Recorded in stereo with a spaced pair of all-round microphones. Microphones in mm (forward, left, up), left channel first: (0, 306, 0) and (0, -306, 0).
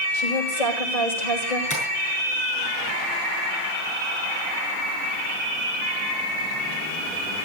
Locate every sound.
0.1 s a woman speaking: 90° left, 8.5 m
1.7 s tapping: 30° left (ahead or behind), 7 m